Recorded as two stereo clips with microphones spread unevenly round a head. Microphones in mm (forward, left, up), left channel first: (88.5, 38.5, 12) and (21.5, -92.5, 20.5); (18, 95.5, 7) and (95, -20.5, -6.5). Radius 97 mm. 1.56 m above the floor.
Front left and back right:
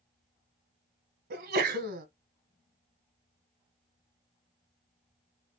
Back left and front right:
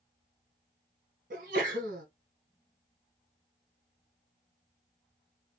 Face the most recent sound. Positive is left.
turn(degrees=-105)